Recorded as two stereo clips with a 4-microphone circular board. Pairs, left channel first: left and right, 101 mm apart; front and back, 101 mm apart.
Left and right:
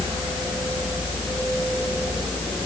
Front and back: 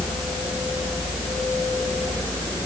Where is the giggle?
I don't hear a giggle.